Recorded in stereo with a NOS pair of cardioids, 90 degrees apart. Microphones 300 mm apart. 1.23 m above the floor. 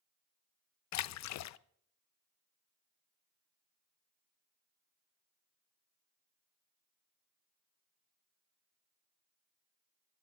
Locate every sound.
0.9 s a splash: 65° left, 0.6 m